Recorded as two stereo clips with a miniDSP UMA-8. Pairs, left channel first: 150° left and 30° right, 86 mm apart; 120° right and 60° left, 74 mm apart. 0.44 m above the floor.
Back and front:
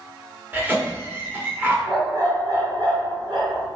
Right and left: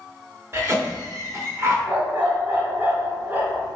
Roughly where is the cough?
Ahead left.